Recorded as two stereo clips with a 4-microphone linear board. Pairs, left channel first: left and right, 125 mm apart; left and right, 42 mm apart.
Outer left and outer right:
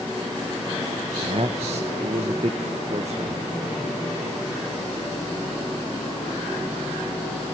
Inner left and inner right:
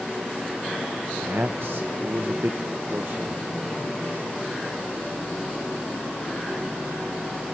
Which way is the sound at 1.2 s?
65° right (ahead or behind).